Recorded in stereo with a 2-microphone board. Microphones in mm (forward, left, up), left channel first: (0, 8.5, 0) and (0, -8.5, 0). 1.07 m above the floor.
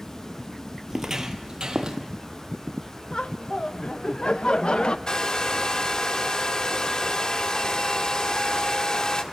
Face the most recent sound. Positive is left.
turn(degrees=45)  # may be behind; listen again after turning